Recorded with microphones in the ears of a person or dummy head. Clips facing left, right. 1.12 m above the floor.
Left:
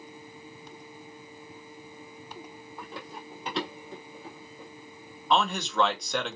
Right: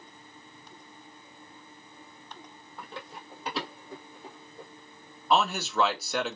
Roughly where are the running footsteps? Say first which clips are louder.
Left 1 dB; centre.